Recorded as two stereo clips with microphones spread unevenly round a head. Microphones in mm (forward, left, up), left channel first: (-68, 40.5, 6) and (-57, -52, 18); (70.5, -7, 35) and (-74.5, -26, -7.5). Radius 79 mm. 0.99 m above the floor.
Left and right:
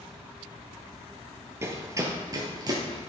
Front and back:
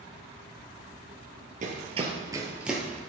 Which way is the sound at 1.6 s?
130° right.